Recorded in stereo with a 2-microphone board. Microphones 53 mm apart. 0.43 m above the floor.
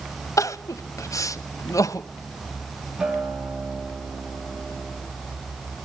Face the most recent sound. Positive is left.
turn(degrees=-10)  # may be behind; listen again after turning